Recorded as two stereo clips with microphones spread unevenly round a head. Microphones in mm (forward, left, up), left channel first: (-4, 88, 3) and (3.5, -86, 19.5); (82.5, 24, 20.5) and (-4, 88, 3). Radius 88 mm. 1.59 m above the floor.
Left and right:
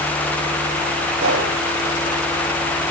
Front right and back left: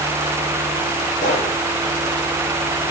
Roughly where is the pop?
Right.